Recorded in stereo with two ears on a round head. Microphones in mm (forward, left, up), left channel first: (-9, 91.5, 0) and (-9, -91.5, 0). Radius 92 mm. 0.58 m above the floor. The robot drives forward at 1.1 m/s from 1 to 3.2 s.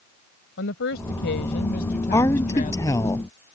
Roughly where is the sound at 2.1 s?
Centre.